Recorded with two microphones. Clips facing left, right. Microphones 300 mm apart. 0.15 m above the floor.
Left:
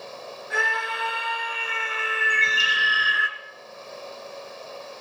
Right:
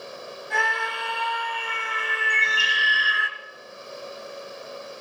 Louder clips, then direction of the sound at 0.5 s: Even; 5° left (ahead or behind).